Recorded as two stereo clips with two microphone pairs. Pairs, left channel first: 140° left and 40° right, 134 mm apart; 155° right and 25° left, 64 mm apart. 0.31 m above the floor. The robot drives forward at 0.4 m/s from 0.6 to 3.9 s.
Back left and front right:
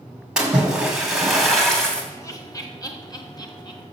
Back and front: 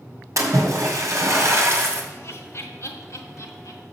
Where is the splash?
40° left, 2 m; by 2.0 s 55° left, 1.8 m.